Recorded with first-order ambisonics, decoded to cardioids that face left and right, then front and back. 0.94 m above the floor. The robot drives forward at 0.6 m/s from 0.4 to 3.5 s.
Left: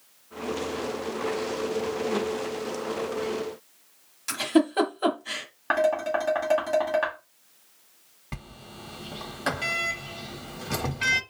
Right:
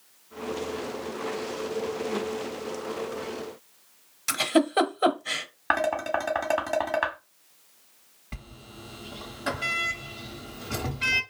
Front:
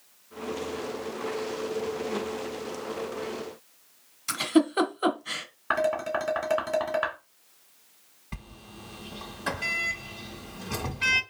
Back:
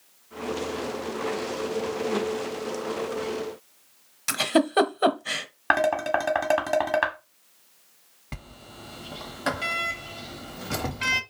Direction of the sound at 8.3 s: 140° left.